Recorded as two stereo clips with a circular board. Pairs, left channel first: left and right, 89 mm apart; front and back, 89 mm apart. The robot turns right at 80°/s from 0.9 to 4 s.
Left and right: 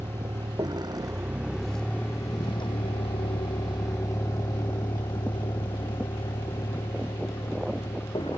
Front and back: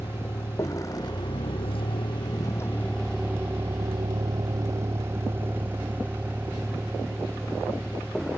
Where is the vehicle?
45° right; by 8.4 s 85° left.